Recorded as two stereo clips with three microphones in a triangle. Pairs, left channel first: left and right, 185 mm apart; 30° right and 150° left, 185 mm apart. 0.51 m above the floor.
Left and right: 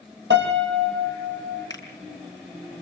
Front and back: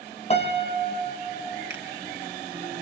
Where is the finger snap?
160° left, 5.5 m.